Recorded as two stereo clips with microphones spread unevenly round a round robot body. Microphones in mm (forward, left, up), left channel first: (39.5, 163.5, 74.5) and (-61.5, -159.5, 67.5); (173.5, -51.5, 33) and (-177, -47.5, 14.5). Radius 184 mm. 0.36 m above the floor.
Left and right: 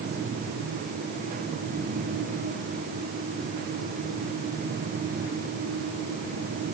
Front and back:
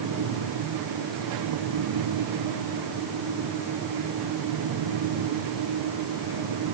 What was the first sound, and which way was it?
Only background noise.